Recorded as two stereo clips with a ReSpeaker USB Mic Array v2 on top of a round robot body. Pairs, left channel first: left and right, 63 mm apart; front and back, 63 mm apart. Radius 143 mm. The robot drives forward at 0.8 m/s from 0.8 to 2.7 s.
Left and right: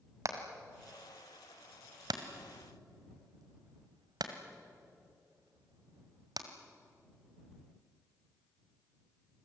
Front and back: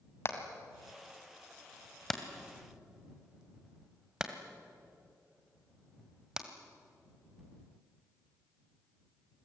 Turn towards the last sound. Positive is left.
turn(degrees=-100)